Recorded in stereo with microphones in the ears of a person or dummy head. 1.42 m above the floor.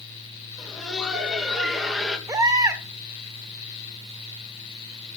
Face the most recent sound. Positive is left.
turn(degrees=-20)  # may be behind; listen again after turning